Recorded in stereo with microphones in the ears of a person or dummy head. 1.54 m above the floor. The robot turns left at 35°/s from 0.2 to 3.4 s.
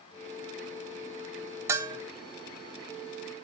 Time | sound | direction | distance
1.7 | a bell | 15° right (ahead or behind) | 0.6 m